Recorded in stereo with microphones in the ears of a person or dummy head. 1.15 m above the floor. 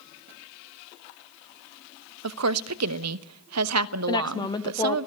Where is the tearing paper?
I don't hear tearing paper.